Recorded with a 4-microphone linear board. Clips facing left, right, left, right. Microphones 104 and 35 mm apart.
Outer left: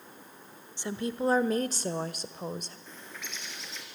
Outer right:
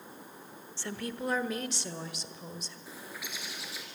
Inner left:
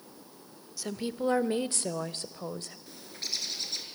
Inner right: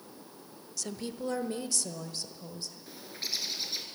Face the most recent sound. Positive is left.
turn(degrees=-10)  # may be behind; listen again after turning